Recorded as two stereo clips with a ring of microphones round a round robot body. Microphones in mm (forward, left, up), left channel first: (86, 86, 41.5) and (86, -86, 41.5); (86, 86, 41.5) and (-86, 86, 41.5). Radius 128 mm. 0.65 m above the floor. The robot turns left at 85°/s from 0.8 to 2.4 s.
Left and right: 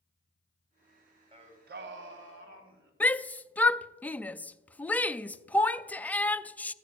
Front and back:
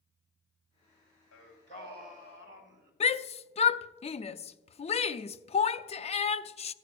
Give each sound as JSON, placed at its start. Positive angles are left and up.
{"t": 1.3, "sound": "singing", "azimuth_deg": -30, "distance_m": 1.7}
{"t": 3.0, "sound": "a shout", "azimuth_deg": 15, "distance_m": 0.5}